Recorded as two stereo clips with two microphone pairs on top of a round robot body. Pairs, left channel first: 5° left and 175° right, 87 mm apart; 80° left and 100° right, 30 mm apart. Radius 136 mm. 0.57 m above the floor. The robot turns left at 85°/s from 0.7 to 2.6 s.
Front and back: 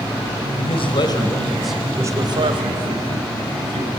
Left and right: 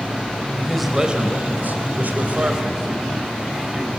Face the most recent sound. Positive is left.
turn(degrees=-165)